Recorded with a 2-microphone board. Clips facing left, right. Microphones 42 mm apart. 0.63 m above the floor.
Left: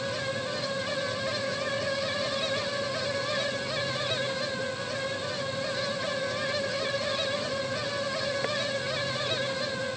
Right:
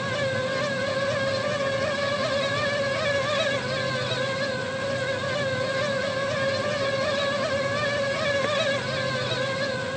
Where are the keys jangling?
No keys jangling in this recording.